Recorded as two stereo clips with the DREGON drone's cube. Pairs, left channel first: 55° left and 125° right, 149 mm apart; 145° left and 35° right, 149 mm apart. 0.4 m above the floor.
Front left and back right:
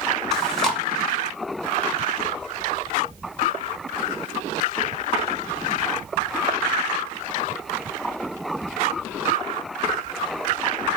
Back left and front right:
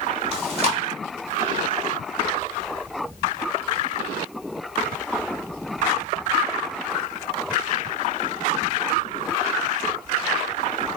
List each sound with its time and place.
0.3 s chewing: 30° right, 0.8 m